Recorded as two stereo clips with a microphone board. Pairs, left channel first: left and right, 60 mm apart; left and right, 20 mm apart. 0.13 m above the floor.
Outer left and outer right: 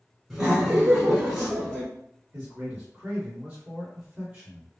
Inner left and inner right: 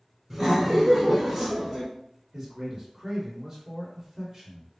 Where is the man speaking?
20° right (ahead or behind), 2.0 m.